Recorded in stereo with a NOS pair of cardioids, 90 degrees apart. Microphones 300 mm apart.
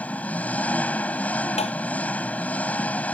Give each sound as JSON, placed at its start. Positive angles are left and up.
{"t": 0.0, "sound": "an engine running", "azimuth_deg": 5}
{"t": 1.6, "sound": "tapping", "azimuth_deg": 20}